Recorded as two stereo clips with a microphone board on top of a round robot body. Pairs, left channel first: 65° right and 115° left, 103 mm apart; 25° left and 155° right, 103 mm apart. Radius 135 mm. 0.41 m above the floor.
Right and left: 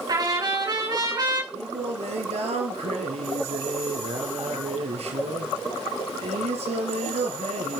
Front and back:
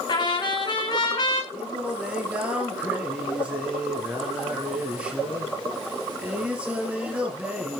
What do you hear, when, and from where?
0.1 s a trumpet: 65° left, 5.5 m
1.5 s singing: 125° left, 3 m